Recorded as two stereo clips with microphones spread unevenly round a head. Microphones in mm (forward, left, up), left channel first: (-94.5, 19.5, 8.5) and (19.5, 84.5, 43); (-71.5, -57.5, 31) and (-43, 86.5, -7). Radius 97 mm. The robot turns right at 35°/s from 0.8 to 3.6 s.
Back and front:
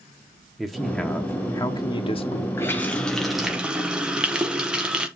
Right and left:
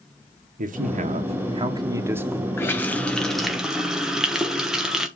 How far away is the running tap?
About 0.9 m.